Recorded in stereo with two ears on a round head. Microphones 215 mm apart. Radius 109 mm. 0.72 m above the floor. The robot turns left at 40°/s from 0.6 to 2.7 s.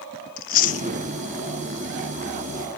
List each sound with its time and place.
0.4 s chewing: 35° left (ahead or behind), 0.9 m; by 0.9 s 25° left (ahead or behind), 0.9 m